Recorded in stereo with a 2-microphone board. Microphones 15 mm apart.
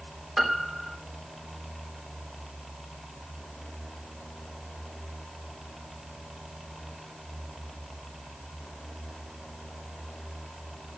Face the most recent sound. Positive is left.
turn(degrees=-5)  # may be behind; listen again after turning